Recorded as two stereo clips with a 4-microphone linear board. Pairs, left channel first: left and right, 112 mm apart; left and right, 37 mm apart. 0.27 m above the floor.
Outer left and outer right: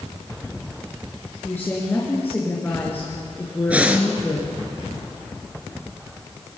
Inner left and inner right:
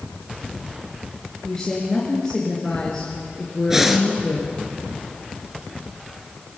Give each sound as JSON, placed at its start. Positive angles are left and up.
{"t": 1.4, "sound": "a woman speaking", "side_deg": 20, "distance_m": 4.5}
{"t": 3.7, "sound": "breathing", "side_deg": -10, "distance_m": 2.0}